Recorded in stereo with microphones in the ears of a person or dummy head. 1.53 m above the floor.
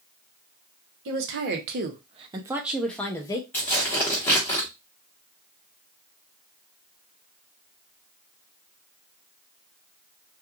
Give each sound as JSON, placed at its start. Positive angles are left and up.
{"t": 1.1, "sound": "a woman speaking", "side_deg": -70, "distance_m": 1.1}
{"t": 3.5, "sound": "tearing paper", "side_deg": 15, "distance_m": 1.1}